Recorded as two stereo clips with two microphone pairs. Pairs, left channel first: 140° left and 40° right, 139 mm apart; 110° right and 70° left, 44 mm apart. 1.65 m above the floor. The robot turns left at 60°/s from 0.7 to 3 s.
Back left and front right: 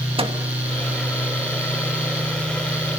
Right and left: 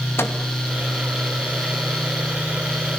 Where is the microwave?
90° right, 2.5 m.